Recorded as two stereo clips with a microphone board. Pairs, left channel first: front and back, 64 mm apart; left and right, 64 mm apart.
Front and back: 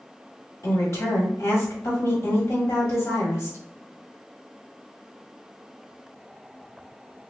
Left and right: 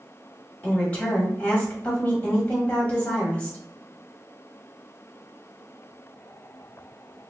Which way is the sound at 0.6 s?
25° left.